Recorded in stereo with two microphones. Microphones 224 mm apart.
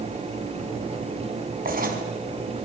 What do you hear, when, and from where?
1.6 s writing: 40° right (ahead or behind), 5 m